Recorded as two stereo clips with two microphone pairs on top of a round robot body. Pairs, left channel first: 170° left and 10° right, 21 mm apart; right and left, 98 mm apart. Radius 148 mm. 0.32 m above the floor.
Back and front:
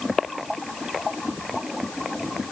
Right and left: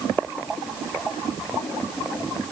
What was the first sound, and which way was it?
Only background noise.